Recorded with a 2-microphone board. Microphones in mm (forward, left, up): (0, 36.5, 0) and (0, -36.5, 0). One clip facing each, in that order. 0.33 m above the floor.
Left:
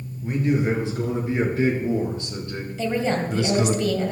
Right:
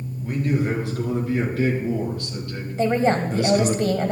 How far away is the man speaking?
About 5 m.